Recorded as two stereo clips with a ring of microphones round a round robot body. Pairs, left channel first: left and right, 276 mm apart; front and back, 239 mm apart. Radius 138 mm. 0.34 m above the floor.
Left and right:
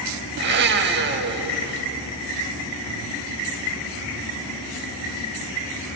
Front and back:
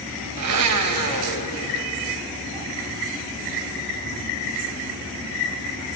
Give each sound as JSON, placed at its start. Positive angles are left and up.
{"t": 0.4, "sound": "a blender", "azimuth_deg": -145, "distance_m": 0.6}